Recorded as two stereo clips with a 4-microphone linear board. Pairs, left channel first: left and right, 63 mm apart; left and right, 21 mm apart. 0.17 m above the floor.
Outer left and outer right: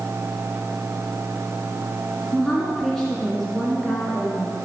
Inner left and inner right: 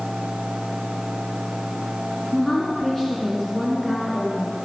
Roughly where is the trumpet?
I don't hear a trumpet.